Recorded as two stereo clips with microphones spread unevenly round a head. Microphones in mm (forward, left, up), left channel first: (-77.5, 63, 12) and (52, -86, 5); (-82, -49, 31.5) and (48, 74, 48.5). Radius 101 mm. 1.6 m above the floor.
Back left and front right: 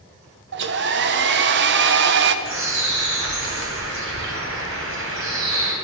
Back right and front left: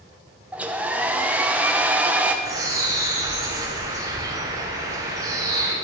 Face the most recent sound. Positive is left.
turn(degrees=-25)